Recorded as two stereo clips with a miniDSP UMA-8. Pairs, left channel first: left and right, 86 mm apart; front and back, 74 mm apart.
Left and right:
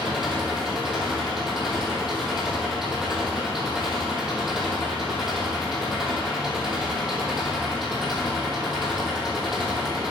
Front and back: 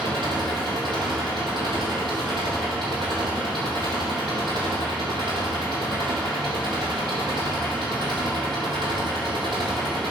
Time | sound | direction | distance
0.0 | an engine running | 175° right | 3 m